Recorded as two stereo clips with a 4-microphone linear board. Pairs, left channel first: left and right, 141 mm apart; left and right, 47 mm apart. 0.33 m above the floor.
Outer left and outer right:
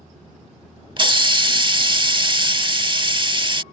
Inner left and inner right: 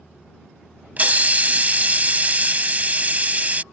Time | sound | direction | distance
1.0 | a hiss | 35° right (ahead or behind) | ?